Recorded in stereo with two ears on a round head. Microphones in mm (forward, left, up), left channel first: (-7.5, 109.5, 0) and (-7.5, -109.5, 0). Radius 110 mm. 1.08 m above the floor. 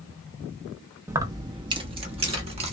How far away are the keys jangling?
About 0.7 m.